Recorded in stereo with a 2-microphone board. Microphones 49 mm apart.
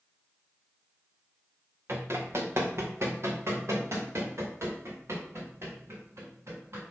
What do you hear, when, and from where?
1.9 s running footsteps: 60° right (ahead or behind), 2 m; by 6.8 s 65° right (ahead or behind), 5 m